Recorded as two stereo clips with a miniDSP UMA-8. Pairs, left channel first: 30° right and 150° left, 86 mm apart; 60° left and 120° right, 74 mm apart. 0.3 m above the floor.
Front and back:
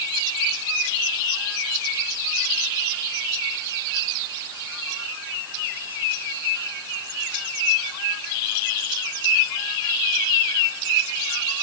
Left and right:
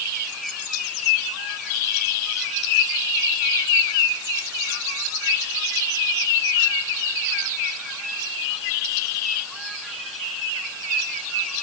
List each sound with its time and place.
Only background noise.